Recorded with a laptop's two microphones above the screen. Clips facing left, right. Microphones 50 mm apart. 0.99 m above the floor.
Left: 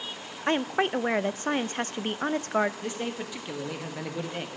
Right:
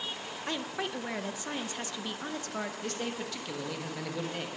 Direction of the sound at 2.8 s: 15° left (ahead or behind).